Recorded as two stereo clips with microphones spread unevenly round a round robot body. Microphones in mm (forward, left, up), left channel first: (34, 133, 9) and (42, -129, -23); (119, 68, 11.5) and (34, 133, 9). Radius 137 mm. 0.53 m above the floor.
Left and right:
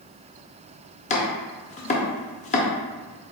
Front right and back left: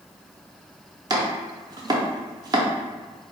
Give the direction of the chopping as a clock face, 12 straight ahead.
7 o'clock.